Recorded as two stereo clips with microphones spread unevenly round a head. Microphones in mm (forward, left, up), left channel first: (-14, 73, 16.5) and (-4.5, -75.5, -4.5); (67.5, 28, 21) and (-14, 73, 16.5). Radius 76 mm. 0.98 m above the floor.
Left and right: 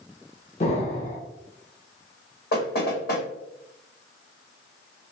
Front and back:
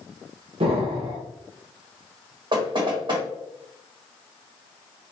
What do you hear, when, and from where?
0.6 s an explosion: 135° left, 1.1 m
2.5 s knocking: 120° left, 1.7 m